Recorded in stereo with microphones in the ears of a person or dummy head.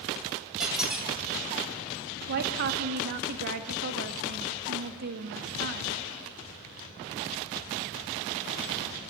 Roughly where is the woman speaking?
Right.